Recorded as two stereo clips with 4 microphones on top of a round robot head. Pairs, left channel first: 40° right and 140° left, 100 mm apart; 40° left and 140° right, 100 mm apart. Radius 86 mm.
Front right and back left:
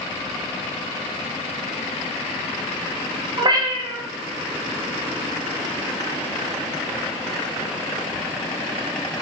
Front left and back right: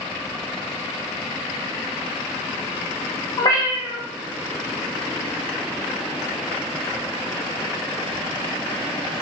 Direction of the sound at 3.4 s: 95° left.